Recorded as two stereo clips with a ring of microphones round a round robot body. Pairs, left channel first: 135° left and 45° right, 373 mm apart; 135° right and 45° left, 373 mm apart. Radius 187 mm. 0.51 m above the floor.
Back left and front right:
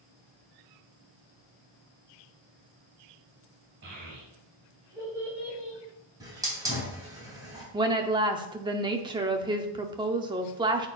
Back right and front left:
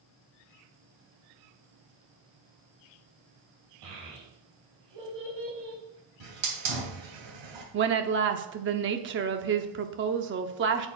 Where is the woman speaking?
20° left, 0.7 m.